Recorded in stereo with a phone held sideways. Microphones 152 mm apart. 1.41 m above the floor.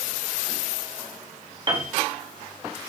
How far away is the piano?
About 1.8 m.